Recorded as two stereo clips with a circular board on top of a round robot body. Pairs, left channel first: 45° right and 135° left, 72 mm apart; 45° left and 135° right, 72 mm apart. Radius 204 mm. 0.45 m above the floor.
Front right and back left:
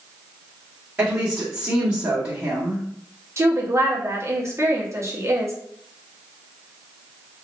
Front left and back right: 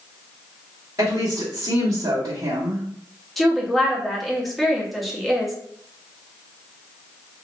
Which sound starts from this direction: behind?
A woman speaking, at 1.0 s.